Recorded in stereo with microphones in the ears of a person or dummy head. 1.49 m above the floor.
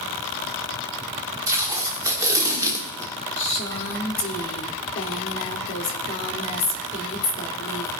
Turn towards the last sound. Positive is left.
turn(degrees=35)  # may be behind; listen again after turning